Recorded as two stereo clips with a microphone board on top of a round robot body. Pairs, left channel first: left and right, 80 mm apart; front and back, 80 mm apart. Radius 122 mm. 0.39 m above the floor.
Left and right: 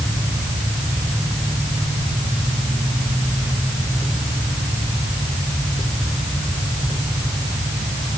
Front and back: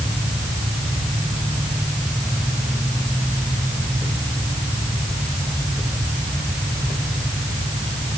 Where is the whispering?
No whispering in this recording.